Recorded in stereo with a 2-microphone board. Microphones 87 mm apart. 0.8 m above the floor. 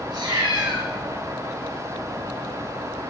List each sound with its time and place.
0.1 s a cat meowing: 55° right (ahead or behind), 2.5 m